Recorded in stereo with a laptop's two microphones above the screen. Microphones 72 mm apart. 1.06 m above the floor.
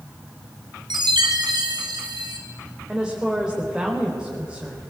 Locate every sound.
0.9 s a chime: 85° right, 3.5 m
2.9 s a woman speaking: 10° right (ahead or behind), 4 m